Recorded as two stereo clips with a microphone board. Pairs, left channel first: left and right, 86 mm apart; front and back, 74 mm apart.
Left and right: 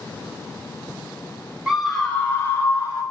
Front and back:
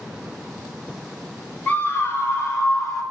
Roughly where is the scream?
Ahead.